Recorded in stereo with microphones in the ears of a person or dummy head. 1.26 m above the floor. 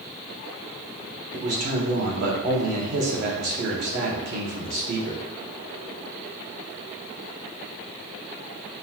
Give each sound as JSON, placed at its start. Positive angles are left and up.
{"t": 1.3, "sound": "a man speaking", "side_deg": -55, "distance_m": 1.0}